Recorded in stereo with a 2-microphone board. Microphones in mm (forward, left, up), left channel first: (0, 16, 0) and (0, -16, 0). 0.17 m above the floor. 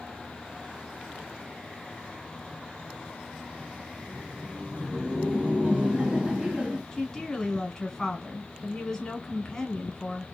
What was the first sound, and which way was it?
Laughter, 40° right (ahead or behind).